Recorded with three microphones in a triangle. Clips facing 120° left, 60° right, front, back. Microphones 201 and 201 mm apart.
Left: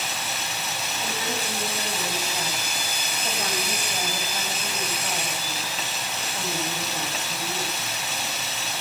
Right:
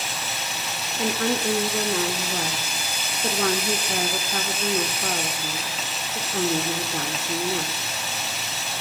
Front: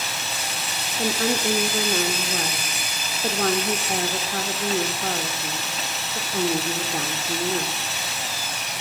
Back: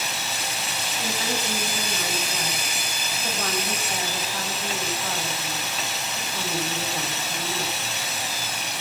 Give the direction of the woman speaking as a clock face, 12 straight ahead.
1 o'clock.